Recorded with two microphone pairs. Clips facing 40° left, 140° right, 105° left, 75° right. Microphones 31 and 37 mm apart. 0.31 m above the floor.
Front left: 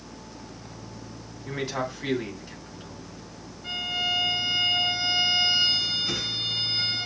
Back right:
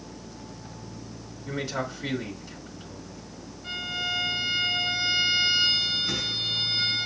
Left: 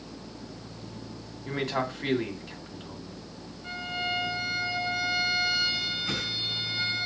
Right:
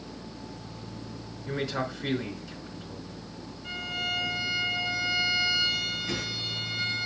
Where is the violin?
95° left, 2.5 m.